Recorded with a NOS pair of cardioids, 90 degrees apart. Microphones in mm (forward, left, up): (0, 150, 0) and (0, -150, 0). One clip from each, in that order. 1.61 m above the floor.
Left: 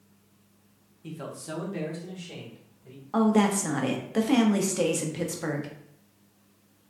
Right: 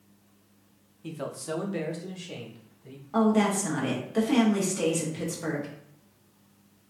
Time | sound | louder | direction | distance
1.0 | a man speaking | right 4 dB | 15° right | 0.7 m
3.1 | a woman speaking | even | 20° left | 0.8 m